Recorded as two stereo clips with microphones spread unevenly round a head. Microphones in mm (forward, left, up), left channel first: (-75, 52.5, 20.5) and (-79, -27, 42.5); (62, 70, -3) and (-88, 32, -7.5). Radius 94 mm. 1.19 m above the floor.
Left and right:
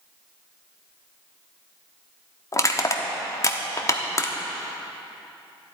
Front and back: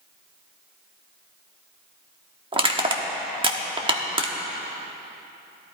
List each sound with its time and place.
2.5 s crushing: 140° left, 1.1 m